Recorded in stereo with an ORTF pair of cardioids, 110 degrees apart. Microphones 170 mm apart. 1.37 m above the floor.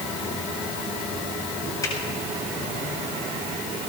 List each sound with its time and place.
1.8 s a finger snap: 20° left, 7 m